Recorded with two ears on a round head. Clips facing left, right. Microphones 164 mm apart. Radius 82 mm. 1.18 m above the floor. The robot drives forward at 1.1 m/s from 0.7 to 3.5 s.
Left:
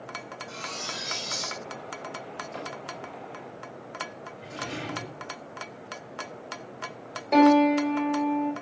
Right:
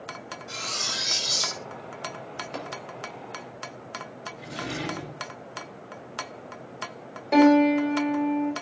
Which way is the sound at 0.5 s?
65° right (ahead or behind).